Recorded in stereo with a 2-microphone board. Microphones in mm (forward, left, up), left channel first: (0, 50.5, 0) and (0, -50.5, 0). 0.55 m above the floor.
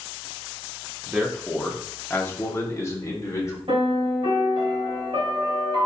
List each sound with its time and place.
1.1 s a man speaking: 5° right (ahead or behind), 0.8 m; by 3.6 s 30° left (ahead or behind), 1.5 m
3.7 s a piano: 60° right (ahead or behind), 2.5 m